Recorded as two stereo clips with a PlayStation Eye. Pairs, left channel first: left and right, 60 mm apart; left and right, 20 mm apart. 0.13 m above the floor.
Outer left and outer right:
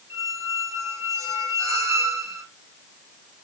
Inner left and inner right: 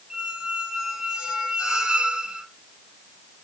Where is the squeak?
50° right (ahead or behind), 2 m.